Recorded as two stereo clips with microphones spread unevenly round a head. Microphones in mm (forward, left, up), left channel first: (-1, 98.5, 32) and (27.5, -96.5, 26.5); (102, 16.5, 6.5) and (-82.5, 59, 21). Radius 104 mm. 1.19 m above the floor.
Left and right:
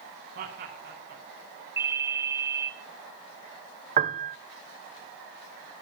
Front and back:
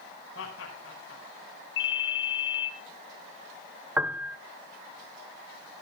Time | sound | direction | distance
0.3 | laughter | 50° right | 5.5 m
1.8 | a ringtone | 5° right | 6 m
4.0 | a piano | 110° right | 0.8 m